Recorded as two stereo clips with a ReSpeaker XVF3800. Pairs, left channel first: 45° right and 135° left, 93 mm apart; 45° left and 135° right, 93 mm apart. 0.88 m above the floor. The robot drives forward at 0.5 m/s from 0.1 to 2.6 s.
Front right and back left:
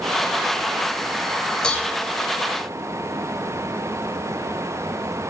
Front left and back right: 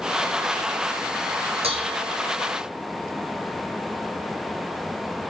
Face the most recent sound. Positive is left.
turn(degrees=-135)